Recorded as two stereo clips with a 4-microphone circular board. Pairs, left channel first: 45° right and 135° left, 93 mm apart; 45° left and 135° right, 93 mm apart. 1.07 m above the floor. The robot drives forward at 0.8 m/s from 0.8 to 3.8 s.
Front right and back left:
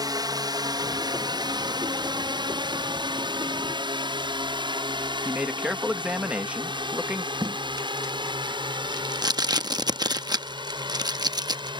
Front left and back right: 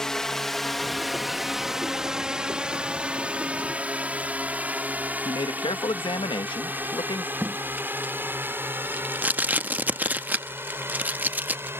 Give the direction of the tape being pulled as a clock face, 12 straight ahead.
7 o'clock.